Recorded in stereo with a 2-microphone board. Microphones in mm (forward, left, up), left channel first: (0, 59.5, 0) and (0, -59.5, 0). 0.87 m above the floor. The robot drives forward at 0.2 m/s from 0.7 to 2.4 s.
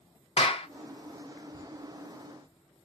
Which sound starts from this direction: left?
A clap, at 0.4 s.